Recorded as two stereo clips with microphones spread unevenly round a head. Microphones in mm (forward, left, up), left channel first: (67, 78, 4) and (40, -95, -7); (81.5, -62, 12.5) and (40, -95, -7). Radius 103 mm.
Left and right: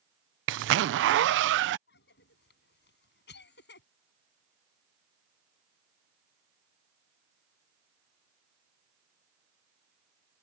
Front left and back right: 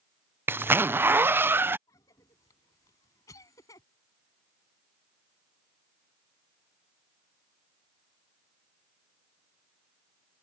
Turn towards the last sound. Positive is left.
turn(degrees=65)